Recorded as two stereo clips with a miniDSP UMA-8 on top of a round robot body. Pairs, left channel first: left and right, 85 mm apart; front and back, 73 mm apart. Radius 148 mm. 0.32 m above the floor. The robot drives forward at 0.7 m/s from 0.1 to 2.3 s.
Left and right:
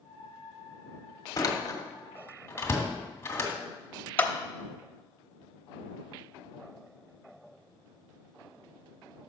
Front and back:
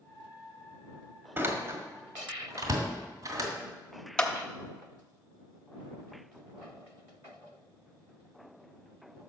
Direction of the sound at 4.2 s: 60° left.